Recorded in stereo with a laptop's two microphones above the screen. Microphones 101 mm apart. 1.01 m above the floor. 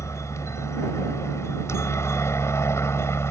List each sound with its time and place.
0.0 s a helicopter: 30° left (ahead or behind); by 3.3 s 25° left (ahead or behind)